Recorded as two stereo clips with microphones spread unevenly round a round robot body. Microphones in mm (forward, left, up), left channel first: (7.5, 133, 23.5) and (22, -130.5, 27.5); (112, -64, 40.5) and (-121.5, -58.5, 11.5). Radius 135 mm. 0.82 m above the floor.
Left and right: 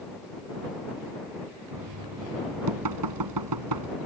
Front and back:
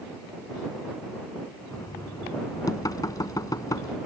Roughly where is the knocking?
Right.